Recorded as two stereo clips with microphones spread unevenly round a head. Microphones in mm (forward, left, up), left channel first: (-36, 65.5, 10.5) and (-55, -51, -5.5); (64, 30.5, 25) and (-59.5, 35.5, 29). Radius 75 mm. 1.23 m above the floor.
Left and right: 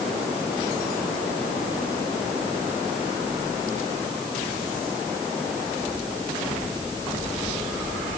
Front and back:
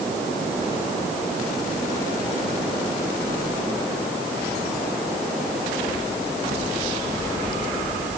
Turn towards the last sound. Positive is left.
No sound to turn to.